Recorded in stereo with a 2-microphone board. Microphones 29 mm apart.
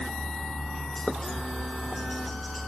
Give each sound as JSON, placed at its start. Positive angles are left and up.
{"t": 0.0, "sound": "a helicopter", "side_deg": 25}